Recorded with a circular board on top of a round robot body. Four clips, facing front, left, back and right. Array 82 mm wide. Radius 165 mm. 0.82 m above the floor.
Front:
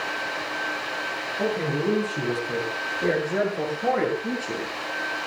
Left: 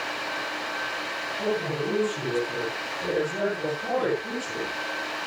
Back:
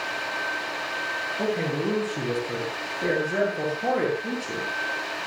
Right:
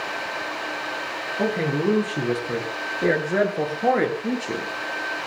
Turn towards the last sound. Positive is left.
turn(degrees=-85)